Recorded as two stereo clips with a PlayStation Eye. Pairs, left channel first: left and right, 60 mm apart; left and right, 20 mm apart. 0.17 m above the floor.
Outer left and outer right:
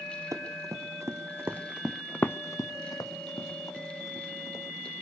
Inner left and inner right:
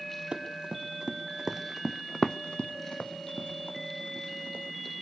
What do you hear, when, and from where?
0.3 s running footsteps: 60° right (ahead or behind), 2.5 m; by 4.9 s 85° left, 4 m